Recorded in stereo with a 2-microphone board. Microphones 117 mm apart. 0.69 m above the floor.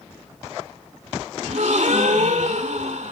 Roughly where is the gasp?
Right.